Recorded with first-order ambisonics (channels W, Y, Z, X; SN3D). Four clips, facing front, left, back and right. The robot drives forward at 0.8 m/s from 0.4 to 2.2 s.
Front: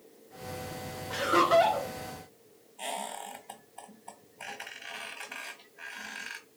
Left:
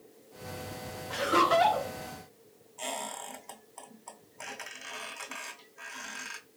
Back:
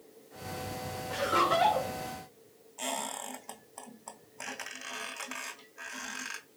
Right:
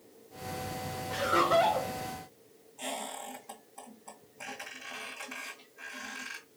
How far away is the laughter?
About 1.2 m.